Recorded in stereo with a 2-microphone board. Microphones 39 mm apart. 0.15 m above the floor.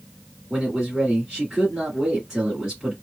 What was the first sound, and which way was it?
A man speaking, 15° right (ahead or behind).